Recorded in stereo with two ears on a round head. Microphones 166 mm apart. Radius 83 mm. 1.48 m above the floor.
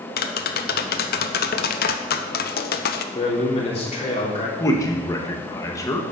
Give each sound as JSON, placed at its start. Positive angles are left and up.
{"t": 0.2, "sound": "tapping", "side_deg": 55, "distance_m": 0.8}
{"t": 3.1, "sound": "a man speaking", "side_deg": 35, "distance_m": 3.5}
{"t": 4.6, "sound": "a man speaking", "side_deg": 20, "distance_m": 1.6}